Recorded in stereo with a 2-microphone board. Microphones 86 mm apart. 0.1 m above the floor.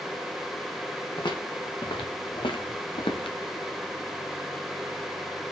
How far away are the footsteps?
About 3 m.